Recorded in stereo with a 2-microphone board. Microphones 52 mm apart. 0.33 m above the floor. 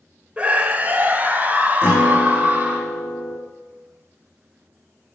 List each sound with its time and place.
0.4 s a scream: 20° right (ahead or behind), 1.0 m; by 2.8 s 30° right (ahead or behind), 3 m
1.8 s a guitar: 35° left (ahead or behind), 6 m